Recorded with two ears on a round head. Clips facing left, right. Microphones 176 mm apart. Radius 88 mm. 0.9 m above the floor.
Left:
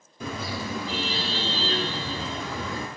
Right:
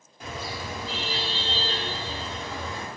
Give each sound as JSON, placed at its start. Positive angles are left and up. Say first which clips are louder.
{"t": 0.2, "sound": "a car horn", "louder": "left 3 dB", "side_deg": 85, "distance_m": 9.0}